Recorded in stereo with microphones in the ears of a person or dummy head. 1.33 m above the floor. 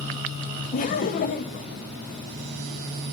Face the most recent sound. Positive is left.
turn(degrees=40)  # may be behind; listen again after turning